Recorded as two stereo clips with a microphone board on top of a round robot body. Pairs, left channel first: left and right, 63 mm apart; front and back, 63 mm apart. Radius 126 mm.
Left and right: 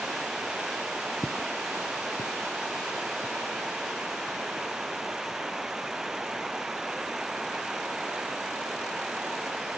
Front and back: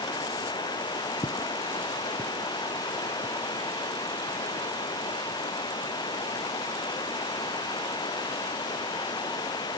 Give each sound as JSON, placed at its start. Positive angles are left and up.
{"t": 0.0, "sound": "running water", "azimuth_deg": -10}
{"t": 1.2, "sound": "footsteps", "azimuth_deg": 15}